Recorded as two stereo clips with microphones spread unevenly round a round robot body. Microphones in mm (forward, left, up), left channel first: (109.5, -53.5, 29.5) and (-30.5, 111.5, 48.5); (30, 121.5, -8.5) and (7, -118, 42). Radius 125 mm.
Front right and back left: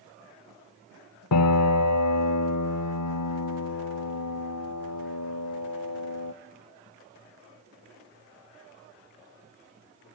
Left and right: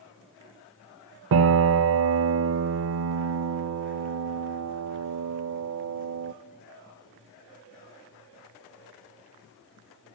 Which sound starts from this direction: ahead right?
A piano, at 1.3 s.